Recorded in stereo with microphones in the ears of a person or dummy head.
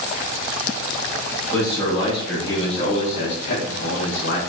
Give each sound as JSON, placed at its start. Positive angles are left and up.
{"t": 1.5, "sound": "a man speaking", "side_deg": 15, "distance_m": 1.9}